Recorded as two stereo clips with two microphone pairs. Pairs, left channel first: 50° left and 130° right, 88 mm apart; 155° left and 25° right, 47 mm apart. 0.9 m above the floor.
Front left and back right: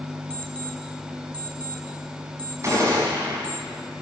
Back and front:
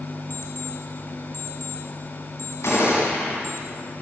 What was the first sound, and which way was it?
An alarm clock, 125° left.